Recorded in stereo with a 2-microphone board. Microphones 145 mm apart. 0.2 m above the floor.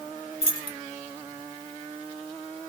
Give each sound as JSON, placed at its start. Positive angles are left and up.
{"t": 0.4, "sound": "keys jangling", "side_deg": 40, "distance_m": 1.0}